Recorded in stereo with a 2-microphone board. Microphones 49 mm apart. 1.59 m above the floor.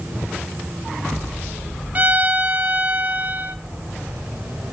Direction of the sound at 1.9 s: 35° right (ahead or behind).